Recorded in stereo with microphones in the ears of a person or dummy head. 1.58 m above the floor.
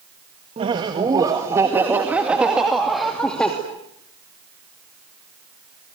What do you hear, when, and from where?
0.6 s laughter: 30° right (ahead or behind), 1.9 m; by 3.5 s 5° left (ahead or behind), 2.5 m